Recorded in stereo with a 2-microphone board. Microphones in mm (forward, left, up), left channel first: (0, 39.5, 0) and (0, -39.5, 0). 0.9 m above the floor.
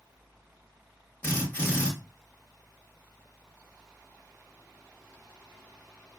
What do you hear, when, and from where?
1.2 s a drill: 25° left (ahead or behind), 1.2 m